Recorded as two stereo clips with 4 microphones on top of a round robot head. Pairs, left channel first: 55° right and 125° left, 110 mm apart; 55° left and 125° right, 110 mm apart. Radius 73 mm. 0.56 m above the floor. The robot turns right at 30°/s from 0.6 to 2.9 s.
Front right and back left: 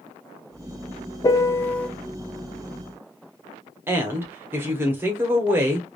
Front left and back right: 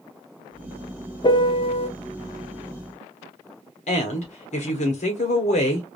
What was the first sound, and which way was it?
A piano, 5° left.